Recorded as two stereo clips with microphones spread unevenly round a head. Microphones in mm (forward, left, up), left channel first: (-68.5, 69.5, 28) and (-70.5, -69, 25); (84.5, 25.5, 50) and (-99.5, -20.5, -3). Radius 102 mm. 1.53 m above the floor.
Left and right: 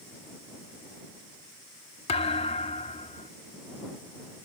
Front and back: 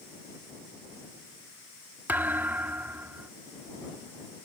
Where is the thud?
95° left.